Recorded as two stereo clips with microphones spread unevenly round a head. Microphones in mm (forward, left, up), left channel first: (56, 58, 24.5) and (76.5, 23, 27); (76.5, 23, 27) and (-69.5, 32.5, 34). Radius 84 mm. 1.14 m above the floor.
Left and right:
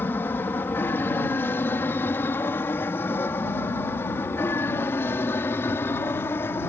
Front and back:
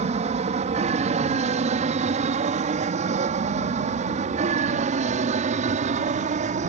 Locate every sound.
0.0 s an aircraft: 145° left